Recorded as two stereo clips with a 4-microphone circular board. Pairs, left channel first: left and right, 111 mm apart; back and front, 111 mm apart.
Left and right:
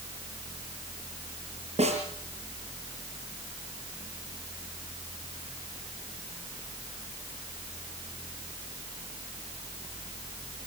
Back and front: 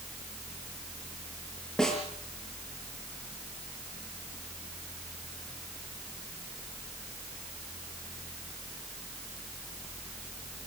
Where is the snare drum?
95° right, 6 m.